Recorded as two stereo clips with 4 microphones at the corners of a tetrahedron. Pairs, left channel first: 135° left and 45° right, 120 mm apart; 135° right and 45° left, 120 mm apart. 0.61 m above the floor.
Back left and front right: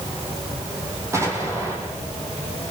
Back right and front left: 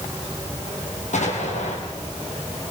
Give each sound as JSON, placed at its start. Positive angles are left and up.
{"t": 1.1, "sound": "an explosion", "azimuth_deg": -115, "distance_m": 6.0}